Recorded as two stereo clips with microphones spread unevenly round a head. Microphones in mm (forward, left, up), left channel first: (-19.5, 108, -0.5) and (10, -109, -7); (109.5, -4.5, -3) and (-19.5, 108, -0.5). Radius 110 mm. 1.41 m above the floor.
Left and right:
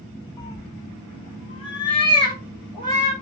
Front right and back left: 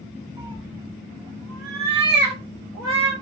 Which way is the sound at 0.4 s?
140° left.